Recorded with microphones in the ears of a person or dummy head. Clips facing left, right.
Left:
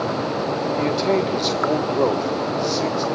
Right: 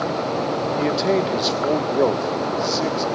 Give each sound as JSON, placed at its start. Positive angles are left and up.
{"t": 0.8, "sound": "a man speaking", "side_deg": -5, "distance_m": 1.5}